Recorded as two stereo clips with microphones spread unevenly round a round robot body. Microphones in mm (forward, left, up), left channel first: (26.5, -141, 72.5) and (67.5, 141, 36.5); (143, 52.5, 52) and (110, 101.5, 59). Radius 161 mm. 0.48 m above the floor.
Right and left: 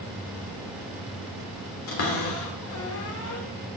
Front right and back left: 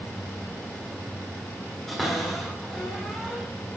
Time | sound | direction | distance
1.9 | a cupboard door | 135° right | 2.0 m